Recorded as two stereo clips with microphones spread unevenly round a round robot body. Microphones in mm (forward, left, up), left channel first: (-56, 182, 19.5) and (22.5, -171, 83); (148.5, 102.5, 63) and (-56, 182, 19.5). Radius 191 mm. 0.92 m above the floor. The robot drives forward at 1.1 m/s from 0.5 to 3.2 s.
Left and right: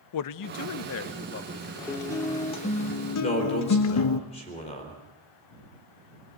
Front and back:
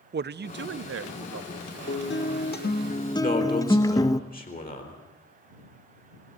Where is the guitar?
20° left, 1.9 m; by 4.2 s 60° left, 0.7 m.